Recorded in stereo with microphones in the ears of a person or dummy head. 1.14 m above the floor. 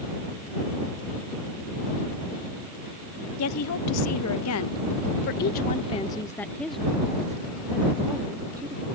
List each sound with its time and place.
3.4 s a woman speaking: 75° left (ahead or behind); by 8.9 s 25° right (ahead or behind)